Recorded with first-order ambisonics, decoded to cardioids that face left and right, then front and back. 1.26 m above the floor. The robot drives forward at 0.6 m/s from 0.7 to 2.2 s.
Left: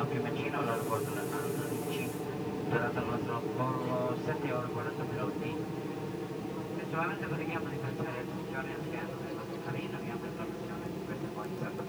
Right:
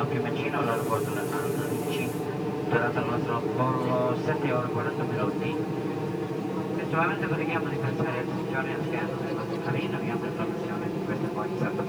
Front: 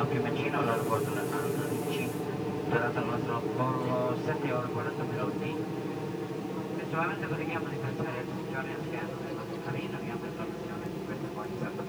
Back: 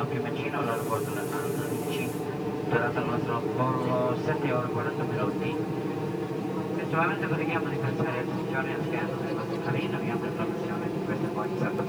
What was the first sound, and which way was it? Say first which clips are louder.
An aircraft: right 6 dB, even; 80° right.